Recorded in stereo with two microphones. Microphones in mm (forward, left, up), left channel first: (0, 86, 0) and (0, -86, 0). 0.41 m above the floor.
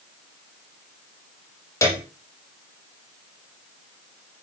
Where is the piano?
15° left (ahead or behind), 6 m.